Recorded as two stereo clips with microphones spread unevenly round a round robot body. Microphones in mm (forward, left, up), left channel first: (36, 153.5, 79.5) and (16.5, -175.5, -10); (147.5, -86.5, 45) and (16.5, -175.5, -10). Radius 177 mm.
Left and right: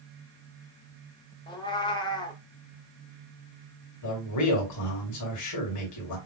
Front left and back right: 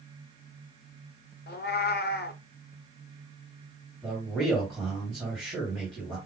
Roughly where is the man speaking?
Behind left.